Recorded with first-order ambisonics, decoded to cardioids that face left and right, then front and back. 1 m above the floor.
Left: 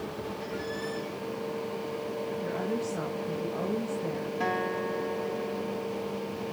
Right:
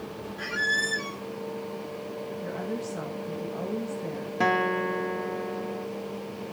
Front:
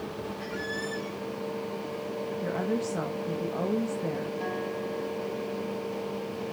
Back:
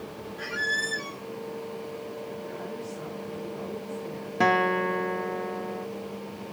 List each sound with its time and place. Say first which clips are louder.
0.4 s a squeak: right 13 dB, back 9 dB; 120° right, 0.5 m
2.4 s a woman speaking: left 1 dB, front 6 dB; straight ahead, 1.3 m
4.4 s a guitar: right 7 dB, back 10 dB; 155° right, 0.5 m